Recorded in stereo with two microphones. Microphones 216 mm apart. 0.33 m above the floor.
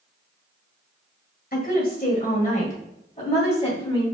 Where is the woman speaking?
45° left (ahead or behind), 1.8 m; by 4.0 s 25° left (ahead or behind), 2 m.